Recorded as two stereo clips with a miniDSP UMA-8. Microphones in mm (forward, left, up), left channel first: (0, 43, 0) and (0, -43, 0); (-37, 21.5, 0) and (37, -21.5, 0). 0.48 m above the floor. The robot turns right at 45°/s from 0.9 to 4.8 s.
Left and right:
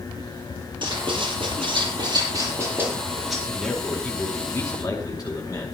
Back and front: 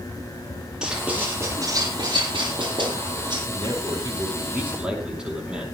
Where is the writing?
110° right, 8 m; by 3.4 s straight ahead, 8 m.